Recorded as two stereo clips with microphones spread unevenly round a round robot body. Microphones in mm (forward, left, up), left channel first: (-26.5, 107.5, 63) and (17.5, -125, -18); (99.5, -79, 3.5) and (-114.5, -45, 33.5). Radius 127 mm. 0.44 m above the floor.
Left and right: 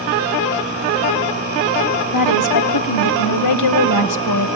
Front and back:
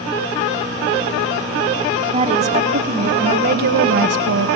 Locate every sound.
2.1 s a woman speaking: 100° left, 3.5 m; by 4.5 s 130° left, 2.5 m